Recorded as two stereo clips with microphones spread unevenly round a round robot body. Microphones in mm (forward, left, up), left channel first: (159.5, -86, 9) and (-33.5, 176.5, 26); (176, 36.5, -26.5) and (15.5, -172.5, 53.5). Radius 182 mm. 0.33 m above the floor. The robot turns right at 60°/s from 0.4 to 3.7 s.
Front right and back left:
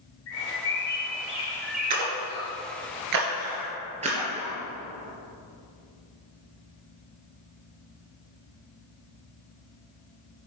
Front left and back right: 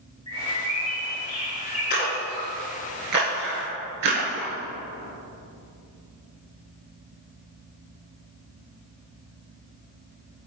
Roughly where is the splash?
Left.